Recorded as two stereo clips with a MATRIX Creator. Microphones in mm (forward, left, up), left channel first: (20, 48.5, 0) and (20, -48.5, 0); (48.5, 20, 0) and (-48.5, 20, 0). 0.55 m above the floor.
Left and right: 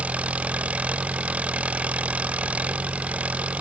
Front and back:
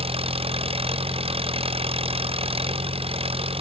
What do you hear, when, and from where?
0.0 s an engine running: 165° right